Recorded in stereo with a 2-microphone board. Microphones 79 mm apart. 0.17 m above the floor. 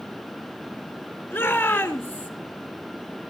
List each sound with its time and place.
1.3 s a shout: 25° left (ahead or behind), 2.5 m; by 2.3 s 20° left (ahead or behind), 2 m